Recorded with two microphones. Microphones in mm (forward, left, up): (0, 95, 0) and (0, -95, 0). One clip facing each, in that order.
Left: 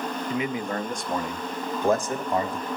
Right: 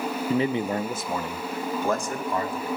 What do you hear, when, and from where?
0.3 s a man speaking: 40° right (ahead or behind), 0.6 m; by 2.7 s 25° left (ahead or behind), 1.7 m